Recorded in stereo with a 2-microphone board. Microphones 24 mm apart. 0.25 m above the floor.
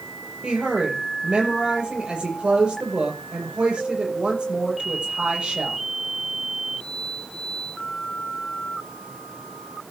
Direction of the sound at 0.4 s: 45° right (ahead or behind).